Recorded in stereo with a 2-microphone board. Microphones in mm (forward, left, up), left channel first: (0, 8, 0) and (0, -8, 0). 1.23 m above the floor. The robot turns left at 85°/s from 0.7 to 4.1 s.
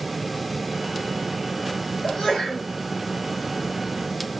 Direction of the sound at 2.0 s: 80° left.